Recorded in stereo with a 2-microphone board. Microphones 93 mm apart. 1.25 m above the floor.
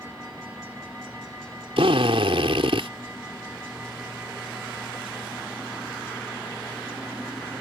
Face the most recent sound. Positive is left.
turn(degrees=-80)